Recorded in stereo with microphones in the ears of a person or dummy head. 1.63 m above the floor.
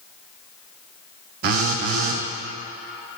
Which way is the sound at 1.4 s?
60° right (ahead or behind).